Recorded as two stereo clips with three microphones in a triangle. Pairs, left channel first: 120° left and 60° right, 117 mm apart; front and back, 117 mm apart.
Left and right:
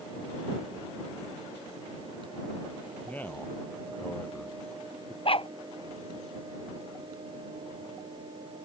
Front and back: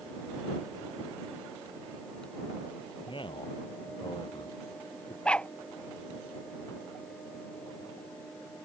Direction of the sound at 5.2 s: 80° left.